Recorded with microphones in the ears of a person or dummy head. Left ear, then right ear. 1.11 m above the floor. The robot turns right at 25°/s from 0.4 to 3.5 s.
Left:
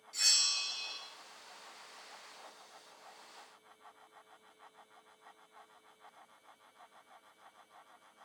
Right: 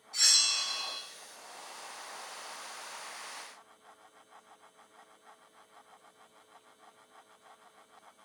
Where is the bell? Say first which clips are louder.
Right 4 dB; 25° left (ahead or behind), 0.9 m; by 1.0 s 10° left (ahead or behind), 0.9 m.